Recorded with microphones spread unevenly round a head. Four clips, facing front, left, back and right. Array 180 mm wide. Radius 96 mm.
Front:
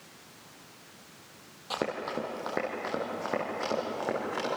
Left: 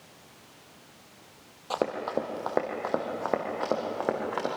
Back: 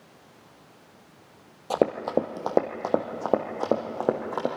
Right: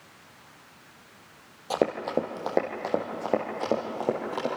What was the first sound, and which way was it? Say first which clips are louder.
Running footsteps: right 3 dB, back 9 dB; 170° right.